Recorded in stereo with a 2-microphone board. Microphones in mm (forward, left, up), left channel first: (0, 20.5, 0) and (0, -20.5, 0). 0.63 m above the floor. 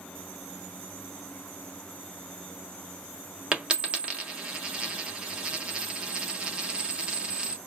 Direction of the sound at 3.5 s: 25° right (ahead or behind).